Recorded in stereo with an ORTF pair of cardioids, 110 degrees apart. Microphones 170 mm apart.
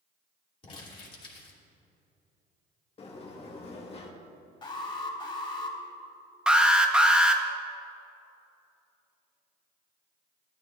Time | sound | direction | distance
0.6 | crumpling | 30° left | 2.5 m
3.0 | a sliding door | 35° left | 1.4 m
4.6 | an alarm | 25° left | 2.5 m
6.5 | an alarm | 5° right | 0.9 m